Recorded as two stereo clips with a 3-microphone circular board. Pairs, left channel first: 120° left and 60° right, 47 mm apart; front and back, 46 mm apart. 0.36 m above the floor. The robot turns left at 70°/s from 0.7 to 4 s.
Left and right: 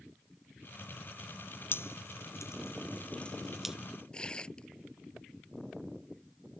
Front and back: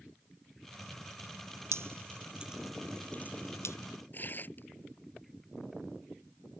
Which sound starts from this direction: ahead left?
Tearing paper, at 4.1 s.